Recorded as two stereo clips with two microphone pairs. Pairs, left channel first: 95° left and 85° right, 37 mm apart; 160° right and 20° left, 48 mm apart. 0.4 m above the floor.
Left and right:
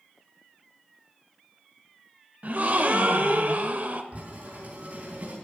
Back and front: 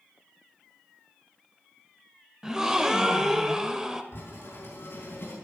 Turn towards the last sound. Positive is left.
turn(degrees=-130)